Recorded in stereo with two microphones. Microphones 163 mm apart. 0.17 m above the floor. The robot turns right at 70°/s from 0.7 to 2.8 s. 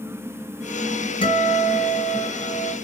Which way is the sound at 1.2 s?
40° left.